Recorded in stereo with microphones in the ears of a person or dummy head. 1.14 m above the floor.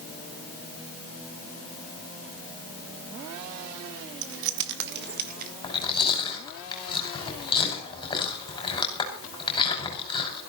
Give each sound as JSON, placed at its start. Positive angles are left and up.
{"t": 4.2, "sound": "keys jangling", "side_deg": -75, "distance_m": 1.4}
{"t": 5.6, "sound": "chewing", "side_deg": 25, "distance_m": 5.5}